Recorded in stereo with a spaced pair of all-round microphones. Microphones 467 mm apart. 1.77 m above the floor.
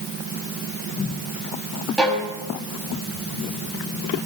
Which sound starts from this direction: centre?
A violin, at 2.0 s.